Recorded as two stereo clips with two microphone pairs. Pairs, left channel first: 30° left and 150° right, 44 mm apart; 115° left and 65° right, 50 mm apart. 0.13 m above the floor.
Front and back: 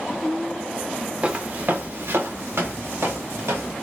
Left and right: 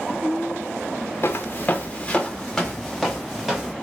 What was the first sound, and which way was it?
Footsteps, 150° left.